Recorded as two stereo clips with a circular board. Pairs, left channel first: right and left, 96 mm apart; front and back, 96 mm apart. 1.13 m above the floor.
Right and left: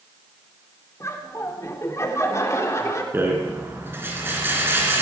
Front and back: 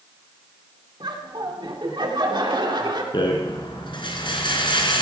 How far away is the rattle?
About 3 m.